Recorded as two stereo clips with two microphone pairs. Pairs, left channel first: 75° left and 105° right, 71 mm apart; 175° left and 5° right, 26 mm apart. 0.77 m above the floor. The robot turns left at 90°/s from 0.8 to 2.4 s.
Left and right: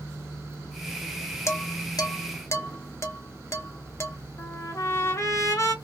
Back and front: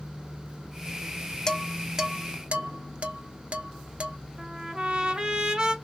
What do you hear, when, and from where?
1.5 s dishes clattering: 115° left, 0.6 m; by 4.2 s 30° left, 0.6 m
4.4 s a trumpet: 50° left, 1.2 m